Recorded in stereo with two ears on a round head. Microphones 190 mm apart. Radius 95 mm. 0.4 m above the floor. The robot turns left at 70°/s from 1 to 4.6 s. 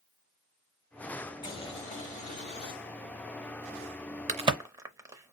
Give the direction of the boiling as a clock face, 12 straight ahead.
7 o'clock.